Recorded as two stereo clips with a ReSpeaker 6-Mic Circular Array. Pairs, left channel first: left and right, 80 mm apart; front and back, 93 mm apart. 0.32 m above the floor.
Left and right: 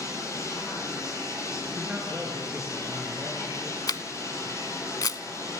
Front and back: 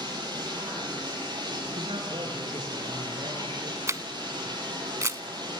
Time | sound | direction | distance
0.0 | running water | 140° left | 9 m
1.8 | a man speaking | 165° right | 4.5 m
3.9 | a camera shutter | 125° left | 0.7 m